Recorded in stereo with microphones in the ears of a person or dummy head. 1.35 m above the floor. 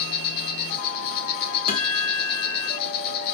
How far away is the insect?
About 1.0 m.